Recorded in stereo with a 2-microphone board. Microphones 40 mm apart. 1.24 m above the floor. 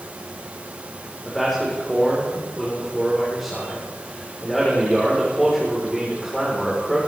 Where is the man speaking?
Centre (ahead or behind), 3.5 m.